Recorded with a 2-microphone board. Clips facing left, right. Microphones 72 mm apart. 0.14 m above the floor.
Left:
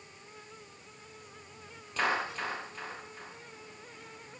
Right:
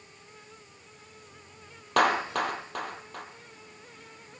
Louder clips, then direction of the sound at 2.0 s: Right 7 dB; 75° right (ahead or behind).